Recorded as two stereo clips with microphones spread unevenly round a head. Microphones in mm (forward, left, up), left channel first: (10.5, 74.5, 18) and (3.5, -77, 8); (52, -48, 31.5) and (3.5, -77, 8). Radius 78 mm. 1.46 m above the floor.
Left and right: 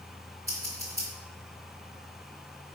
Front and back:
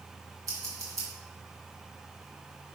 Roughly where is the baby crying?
No baby crying in this recording.